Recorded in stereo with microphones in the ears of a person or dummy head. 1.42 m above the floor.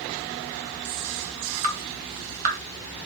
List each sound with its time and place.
1.6 s dripping: 40° right (ahead or behind), 1.8 m